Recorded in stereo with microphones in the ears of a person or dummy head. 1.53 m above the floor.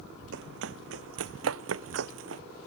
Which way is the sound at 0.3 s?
70° right (ahead or behind).